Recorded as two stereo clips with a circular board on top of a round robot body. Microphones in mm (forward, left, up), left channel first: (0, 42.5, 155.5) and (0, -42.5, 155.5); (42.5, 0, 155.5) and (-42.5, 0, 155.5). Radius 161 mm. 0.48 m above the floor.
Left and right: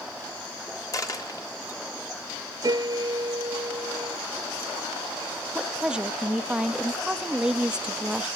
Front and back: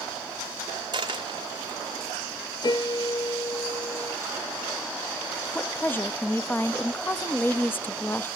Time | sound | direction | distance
0.9 | a dropped coin | 140° left | 1.6 m
2.6 | a piano | 40° right | 0.6 m
5.5 | a woman speaking | 25° right | 1.1 m